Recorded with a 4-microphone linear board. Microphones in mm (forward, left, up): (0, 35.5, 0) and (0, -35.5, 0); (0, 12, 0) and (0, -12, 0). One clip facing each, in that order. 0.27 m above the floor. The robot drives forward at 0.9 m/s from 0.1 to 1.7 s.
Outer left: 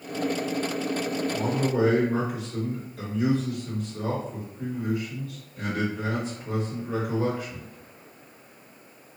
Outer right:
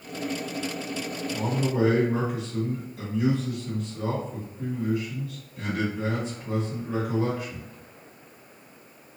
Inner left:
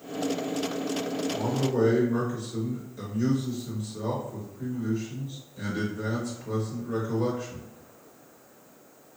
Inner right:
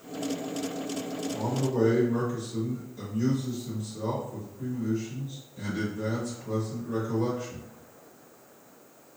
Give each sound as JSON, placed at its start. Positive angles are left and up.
{"t": 1.3, "sound": "a man speaking", "side_deg": 0, "distance_m": 2.0}